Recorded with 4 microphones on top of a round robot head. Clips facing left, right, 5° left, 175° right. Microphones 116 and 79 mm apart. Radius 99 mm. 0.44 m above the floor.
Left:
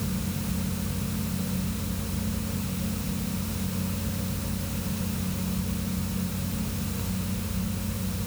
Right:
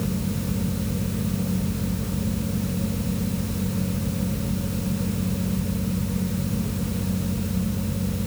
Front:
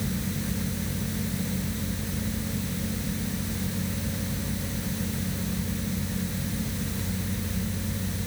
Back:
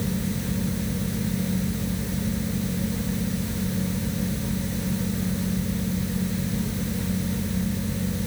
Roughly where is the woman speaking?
I don't hear a woman speaking.